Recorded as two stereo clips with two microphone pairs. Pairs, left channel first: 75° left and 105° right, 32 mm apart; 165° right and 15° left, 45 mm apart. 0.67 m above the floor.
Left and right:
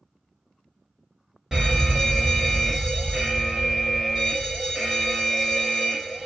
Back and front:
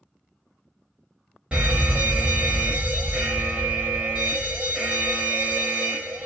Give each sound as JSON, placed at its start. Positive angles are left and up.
{"t": 1.5, "sound": "a fire alarm", "azimuth_deg": -40, "distance_m": 2.0}